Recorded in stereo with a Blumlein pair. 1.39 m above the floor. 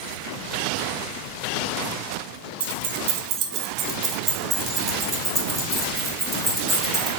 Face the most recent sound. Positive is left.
turn(degrees=0)